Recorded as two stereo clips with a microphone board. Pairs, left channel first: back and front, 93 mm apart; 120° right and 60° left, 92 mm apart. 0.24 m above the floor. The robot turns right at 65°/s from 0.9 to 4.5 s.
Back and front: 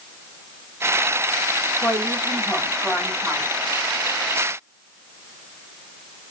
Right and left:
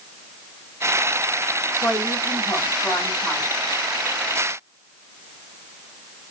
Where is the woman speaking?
170° right, 1.8 m; by 3.5 s 60° right, 1.8 m.